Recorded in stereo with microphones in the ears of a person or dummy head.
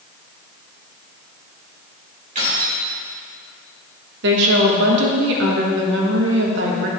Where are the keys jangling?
40° right (ahead or behind), 2.5 m.